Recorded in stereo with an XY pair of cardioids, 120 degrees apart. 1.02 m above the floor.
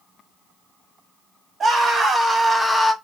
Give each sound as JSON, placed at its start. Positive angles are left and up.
{"t": 1.6, "sound": "a scream", "azimuth_deg": -30, "distance_m": 1.7}